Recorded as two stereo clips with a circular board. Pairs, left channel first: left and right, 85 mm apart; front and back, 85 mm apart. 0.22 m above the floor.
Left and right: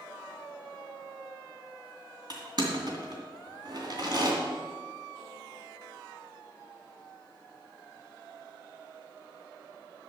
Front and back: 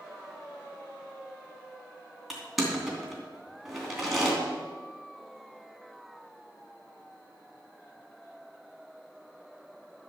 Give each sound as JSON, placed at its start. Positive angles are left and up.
{"t": 2.3, "sound": "crushing", "azimuth_deg": -95, "distance_m": 2.5}